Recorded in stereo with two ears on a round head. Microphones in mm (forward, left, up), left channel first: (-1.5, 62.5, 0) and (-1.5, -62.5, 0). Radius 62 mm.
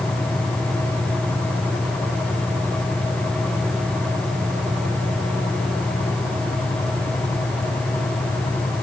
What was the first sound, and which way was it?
Only background noise.